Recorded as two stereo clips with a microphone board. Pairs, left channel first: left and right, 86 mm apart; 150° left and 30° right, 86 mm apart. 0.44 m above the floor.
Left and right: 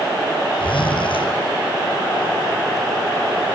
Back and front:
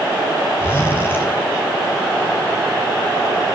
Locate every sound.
0.6 s a zipper: 85° left, 6 m